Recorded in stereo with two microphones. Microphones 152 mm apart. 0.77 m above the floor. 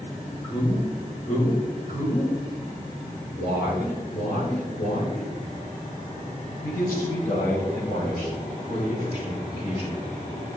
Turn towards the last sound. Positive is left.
turn(degrees=45)  # may be behind; listen again after turning